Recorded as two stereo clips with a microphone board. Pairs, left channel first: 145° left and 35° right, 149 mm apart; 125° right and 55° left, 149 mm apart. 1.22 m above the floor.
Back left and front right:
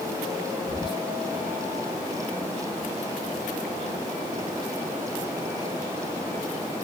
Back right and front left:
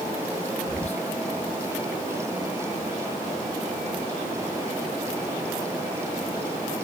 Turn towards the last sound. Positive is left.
turn(degrees=-160)